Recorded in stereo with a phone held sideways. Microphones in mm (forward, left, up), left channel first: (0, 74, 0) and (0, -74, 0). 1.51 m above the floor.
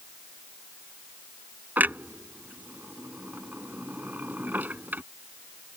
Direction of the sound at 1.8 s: 10° right (ahead or behind).